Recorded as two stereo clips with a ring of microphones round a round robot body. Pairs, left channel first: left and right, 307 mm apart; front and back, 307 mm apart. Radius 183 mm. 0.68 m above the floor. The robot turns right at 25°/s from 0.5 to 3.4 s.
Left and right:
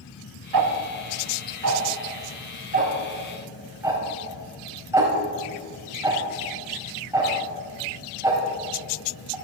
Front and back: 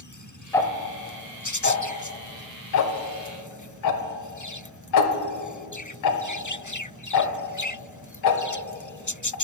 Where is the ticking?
80° right, 0.6 m; by 9.3 s 10° right, 0.6 m.